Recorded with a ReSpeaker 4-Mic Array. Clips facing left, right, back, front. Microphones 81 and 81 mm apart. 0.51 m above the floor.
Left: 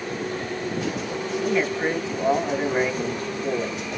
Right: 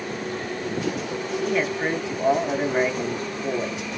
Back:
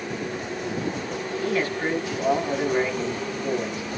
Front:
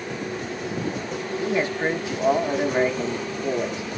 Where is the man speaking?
5° right, 0.7 m.